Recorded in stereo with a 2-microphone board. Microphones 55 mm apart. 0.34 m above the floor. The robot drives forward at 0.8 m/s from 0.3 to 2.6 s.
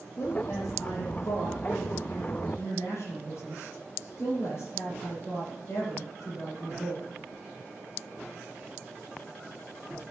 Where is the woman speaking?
65° left (ahead or behind), 7.5 m; by 7.1 s 55° left (ahead or behind), 8 m.